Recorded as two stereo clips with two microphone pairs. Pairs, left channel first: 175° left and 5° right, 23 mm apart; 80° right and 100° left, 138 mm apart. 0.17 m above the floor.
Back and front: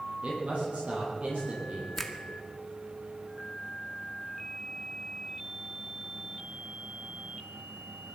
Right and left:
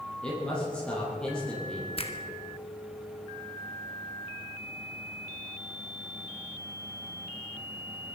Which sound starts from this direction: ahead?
A man speaking, at 0.2 s.